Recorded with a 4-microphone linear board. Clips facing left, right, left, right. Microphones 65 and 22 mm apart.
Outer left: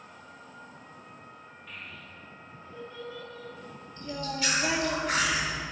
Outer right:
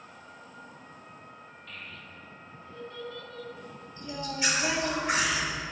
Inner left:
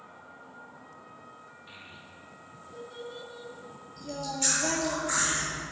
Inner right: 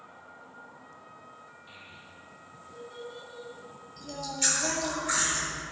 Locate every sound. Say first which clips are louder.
1.7 s a child speaking: outer left 1 dB, inner left 2 dB; 10° left (ahead or behind), 1.6 m
4.0 s chewing: even, even; 20° right (ahead or behind), 3.5 m